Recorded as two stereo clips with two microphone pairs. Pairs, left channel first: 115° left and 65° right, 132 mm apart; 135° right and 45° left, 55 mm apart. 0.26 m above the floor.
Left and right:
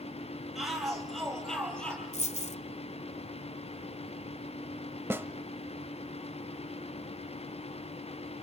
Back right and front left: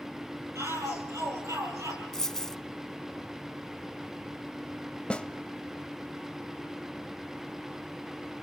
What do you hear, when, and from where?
0.6 s a shout: 25° left, 9 m; by 2.0 s 30° left, 8.5 m
2.1 s a dropped coin: 145° left, 0.9 m
5.1 s a snare drum: 100° right, 1.2 m